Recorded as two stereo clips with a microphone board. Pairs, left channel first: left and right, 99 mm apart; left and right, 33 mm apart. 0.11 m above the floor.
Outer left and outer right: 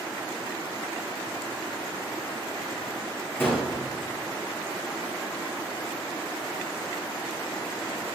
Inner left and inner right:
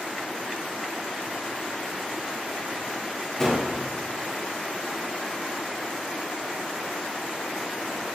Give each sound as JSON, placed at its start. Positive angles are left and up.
{"t": 3.4, "sound": "a gunshot", "side_deg": 20, "distance_m": 7.0}